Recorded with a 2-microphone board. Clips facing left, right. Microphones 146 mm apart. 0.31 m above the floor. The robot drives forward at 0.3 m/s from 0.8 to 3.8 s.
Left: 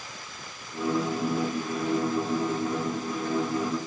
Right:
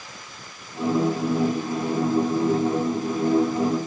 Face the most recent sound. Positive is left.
No sound to turn to.